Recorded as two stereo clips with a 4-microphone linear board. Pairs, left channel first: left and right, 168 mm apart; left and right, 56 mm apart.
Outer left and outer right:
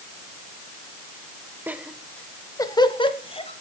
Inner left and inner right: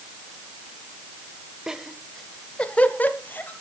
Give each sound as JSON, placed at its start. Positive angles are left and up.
{"t": 1.7, "sound": "laughter", "side_deg": -10, "distance_m": 0.9}